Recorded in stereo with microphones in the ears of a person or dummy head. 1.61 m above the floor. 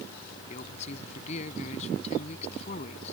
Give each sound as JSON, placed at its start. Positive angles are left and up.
{"t": 0.5, "sound": "a man speaking", "side_deg": 45}